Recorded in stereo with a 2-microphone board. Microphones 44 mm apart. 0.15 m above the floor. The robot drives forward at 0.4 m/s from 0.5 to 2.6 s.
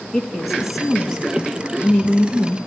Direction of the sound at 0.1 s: 5° right (ahead or behind).